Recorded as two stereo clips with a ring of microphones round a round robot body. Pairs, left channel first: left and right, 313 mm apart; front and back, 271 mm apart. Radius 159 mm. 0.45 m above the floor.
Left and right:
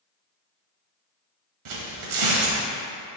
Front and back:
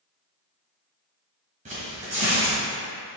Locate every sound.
1.6 s tearing paper: 110° right, 1.4 m